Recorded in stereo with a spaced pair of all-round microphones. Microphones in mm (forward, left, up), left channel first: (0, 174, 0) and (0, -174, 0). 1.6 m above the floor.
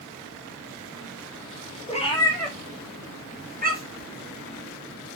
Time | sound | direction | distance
1.9 | a cat meowing | 20° left (ahead or behind) | 1.0 m